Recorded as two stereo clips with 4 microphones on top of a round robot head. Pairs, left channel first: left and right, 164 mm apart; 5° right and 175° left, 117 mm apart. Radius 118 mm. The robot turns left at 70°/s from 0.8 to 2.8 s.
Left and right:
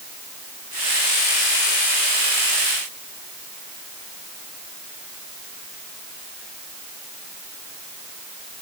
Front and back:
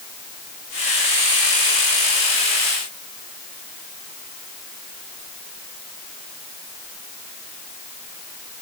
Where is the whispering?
I don't hear whispering.